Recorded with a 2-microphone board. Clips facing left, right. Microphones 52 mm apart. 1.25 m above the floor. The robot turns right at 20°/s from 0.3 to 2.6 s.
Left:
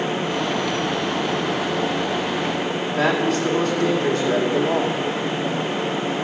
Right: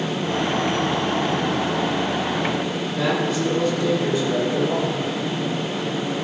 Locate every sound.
2.9 s a man speaking: 70° left (ahead or behind), 2.5 m